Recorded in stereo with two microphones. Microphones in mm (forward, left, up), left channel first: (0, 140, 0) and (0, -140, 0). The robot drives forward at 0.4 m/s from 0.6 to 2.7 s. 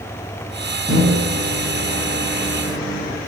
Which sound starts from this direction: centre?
A microwave, at 0.9 s.